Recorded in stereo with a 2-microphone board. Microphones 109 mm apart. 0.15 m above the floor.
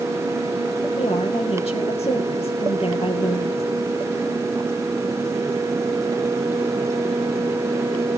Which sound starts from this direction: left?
A woman speaking, at 1.0 s.